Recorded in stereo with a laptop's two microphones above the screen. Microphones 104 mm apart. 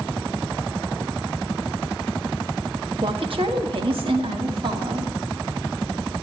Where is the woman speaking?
60° right (ahead or behind), 1.3 m.